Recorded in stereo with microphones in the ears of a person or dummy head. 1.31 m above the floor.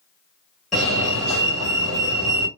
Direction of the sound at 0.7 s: 5° left (ahead or behind).